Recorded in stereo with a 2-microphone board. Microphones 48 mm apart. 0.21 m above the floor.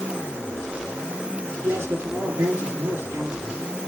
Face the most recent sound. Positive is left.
turn(degrees=-70)  # may be behind; listen again after turning